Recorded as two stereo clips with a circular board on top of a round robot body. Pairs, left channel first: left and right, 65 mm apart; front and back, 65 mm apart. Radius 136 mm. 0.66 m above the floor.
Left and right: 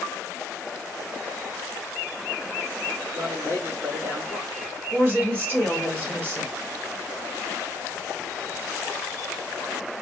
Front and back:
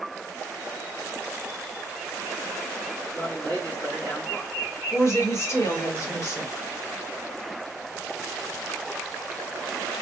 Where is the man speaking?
70° right, 2 m.